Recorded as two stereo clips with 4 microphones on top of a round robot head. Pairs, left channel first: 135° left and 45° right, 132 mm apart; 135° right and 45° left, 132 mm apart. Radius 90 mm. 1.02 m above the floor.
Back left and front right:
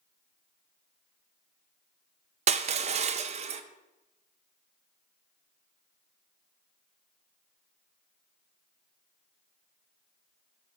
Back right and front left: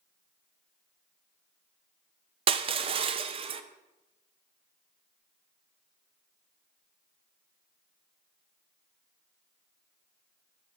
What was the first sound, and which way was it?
Crushing, 5° right.